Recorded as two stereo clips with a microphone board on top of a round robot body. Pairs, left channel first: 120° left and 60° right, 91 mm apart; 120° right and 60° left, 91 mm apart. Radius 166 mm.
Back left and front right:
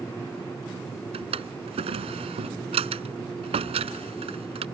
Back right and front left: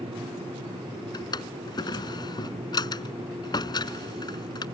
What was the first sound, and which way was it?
A drawer, 75° right.